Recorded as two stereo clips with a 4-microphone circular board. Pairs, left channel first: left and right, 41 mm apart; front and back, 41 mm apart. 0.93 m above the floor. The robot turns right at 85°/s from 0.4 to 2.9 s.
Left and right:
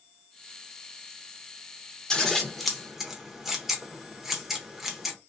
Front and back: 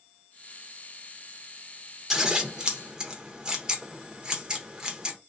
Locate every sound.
2.1 s scissors: 135° left, 0.6 m; by 5.2 s 155° right, 0.6 m